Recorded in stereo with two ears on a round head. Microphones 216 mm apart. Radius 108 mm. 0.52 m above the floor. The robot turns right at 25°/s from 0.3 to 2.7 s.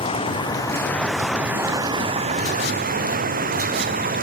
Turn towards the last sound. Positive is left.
turn(degrees=-145)